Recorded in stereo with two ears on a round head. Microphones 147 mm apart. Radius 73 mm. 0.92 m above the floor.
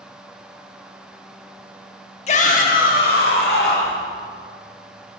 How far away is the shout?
About 1.2 m.